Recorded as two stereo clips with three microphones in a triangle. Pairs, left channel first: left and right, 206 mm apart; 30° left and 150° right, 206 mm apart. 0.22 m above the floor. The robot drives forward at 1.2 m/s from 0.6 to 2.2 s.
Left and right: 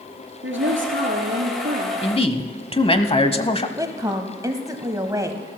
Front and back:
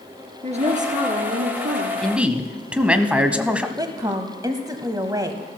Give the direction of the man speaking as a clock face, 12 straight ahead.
8 o'clock.